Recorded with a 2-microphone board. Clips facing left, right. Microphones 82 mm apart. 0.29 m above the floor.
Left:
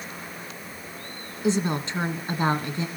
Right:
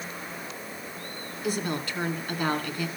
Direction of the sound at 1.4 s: 25° left (ahead or behind).